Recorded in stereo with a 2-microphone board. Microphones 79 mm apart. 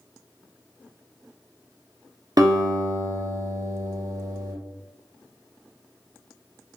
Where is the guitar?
50° right (ahead or behind), 0.9 m.